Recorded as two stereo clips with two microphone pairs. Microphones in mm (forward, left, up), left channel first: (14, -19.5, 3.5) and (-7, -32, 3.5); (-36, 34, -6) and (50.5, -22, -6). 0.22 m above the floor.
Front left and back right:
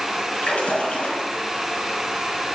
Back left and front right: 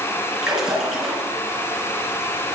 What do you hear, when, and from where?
0.4 s a splash: 50° left, 3.5 m